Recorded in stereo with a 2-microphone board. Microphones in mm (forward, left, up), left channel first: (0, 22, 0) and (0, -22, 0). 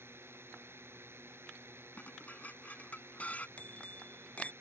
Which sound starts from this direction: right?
A drone, at 0.0 s.